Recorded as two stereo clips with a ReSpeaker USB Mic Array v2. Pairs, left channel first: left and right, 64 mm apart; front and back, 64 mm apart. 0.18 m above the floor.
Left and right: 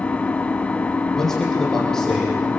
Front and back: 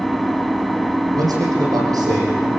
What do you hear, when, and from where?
0.0 s an engine running: 90° left, 0.9 m
1.1 s a man speaking: 175° left, 8 m